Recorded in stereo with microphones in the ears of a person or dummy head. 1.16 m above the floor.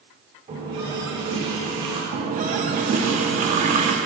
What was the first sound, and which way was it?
A running tap, 30° right (ahead or behind).